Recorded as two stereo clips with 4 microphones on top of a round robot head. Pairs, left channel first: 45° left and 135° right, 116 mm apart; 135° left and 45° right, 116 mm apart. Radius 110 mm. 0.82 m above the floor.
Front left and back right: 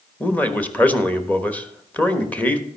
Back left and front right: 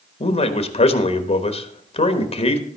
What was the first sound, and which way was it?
A man speaking, 120° left.